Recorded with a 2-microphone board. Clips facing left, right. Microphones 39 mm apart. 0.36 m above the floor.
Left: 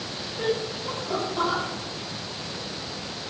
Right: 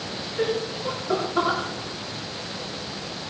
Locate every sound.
0.4 s laughter: 60° right (ahead or behind), 5 m; by 1.6 s 50° right (ahead or behind), 5.5 m